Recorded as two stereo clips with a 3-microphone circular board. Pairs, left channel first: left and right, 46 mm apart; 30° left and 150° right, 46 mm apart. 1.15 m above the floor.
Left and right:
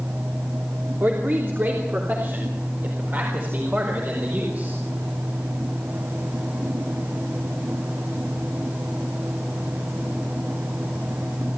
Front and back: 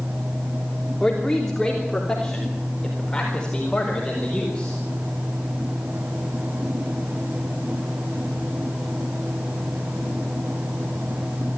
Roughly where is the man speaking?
Ahead right.